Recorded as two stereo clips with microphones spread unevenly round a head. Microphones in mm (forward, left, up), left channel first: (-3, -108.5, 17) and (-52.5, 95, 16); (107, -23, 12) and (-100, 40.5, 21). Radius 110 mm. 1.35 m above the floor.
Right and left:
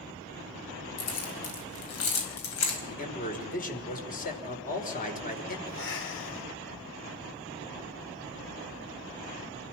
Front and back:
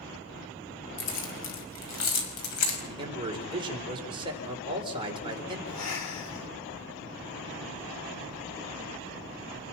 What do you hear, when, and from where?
1.0 s keys jangling: 55° right, 5 m; by 2.8 s 45° right, 5.5 m
2.9 s a man speaking: 130° right, 4.5 m
5.7 s breathing: 35° right, 3 m